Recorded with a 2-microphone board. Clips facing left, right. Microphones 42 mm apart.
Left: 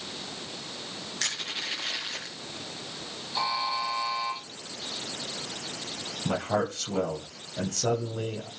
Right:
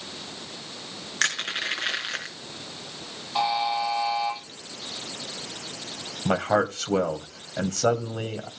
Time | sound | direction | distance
1.2 | crushing | 55° right (ahead or behind) | 5 m
3.4 | a buzzer | 55° right (ahead or behind) | 9 m
6.2 | a man speaking | 50° right (ahead or behind) | 2 m